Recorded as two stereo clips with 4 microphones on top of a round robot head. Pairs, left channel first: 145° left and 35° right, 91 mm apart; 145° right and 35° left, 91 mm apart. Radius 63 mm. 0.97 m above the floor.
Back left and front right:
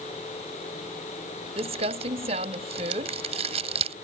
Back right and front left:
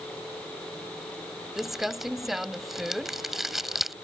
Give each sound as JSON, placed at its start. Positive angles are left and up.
{"t": 1.6, "sound": "crumpling", "azimuth_deg": -50}